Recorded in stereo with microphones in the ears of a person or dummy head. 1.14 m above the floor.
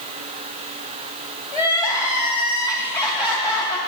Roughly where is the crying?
Centre.